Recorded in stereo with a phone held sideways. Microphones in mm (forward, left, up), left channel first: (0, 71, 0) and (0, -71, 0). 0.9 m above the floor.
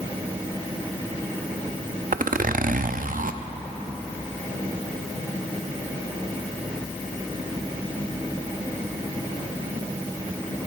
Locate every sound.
2.1 s a zipper: 75° right (ahead or behind), 0.5 m